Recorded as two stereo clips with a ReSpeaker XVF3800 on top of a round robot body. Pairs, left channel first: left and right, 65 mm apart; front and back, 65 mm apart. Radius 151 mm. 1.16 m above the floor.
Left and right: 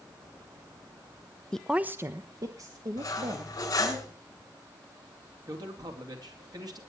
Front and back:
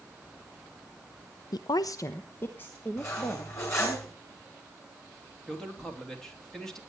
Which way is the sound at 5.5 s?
80° right.